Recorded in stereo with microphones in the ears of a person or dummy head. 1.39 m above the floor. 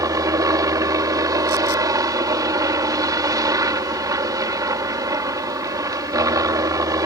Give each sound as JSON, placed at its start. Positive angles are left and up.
{"t": 0.0, "sound": "a helicopter", "side_deg": -20}